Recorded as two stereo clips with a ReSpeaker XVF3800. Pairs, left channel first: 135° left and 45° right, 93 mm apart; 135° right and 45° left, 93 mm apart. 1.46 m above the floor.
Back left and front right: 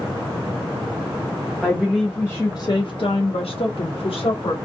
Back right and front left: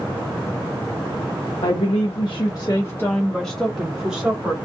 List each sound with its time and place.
1.6 s a woman speaking: 135° right, 0.8 m; by 4.5 s 120° left, 1.4 m